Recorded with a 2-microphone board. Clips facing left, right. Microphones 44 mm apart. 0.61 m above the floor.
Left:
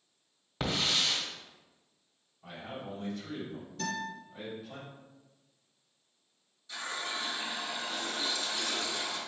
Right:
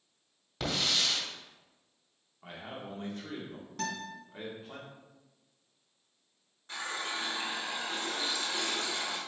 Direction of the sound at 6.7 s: 45° right (ahead or behind).